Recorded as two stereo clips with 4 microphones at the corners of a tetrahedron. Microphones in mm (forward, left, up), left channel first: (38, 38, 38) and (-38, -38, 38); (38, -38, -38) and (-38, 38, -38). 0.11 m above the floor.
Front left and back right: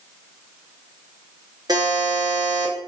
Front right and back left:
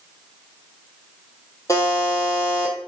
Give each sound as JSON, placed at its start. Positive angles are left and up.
{"t": 1.7, "sound": "a buzzer", "azimuth_deg": -95, "distance_m": 0.7}